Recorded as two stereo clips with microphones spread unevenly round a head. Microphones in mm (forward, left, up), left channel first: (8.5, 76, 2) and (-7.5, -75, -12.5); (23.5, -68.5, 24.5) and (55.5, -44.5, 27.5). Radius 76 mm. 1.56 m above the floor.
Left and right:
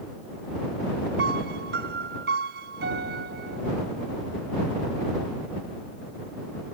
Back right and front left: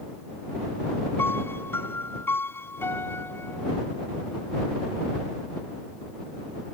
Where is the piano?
120° right.